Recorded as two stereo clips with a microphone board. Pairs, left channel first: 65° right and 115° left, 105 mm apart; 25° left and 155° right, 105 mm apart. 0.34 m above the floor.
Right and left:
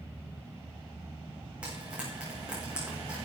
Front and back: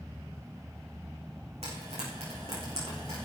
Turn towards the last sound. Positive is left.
turn(degrees=-170)